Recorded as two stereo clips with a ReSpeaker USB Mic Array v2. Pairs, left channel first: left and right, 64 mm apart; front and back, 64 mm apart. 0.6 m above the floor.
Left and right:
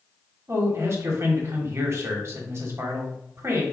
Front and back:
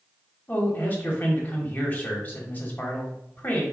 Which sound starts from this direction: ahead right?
A man speaking, at 0.5 s.